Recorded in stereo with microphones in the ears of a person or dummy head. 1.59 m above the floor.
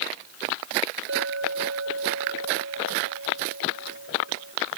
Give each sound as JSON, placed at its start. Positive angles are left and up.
{"t": 1.1, "sound": "a clink", "side_deg": -85}